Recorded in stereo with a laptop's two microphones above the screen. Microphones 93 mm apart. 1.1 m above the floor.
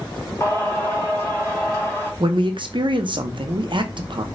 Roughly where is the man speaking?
Right.